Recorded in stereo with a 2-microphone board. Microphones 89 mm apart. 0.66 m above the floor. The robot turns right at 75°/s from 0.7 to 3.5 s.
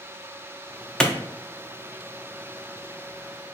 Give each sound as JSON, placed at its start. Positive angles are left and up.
{"t": 1.0, "sound": "a clap", "side_deg": 5, "distance_m": 0.6}